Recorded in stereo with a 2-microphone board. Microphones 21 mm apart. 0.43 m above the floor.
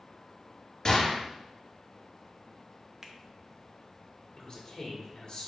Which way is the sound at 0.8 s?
30° left (ahead or behind).